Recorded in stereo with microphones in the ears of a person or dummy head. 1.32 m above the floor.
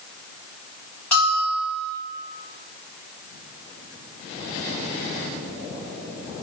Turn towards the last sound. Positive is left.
turn(degrees=10)  # may be behind; listen again after turning